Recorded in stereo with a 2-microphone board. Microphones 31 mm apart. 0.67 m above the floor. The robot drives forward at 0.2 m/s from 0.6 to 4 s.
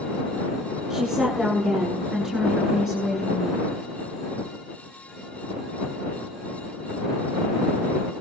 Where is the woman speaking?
15° right (ahead or behind), 8.5 m.